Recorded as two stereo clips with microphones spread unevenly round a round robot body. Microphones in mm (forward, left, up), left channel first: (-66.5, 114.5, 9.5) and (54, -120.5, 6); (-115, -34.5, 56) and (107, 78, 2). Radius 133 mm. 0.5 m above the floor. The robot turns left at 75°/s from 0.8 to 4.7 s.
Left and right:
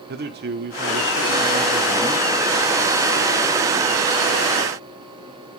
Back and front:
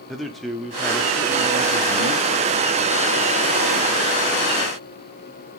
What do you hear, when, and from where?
0.1 s a man speaking: 50° right, 1.2 m; by 2.7 s 170° left, 1.2 m